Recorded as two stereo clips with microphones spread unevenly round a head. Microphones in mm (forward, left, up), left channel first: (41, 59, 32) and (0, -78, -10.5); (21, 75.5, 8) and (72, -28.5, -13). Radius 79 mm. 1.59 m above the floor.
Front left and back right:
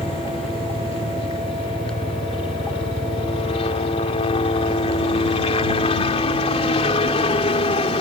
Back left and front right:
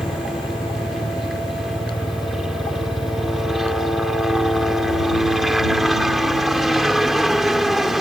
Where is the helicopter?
25° left.